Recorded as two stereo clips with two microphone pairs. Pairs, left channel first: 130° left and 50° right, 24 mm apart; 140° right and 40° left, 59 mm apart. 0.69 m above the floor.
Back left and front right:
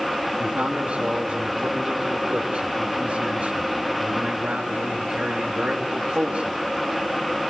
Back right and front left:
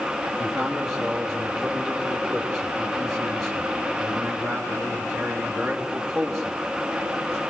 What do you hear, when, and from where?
0.4 s a man speaking: 50° right, 4.5 m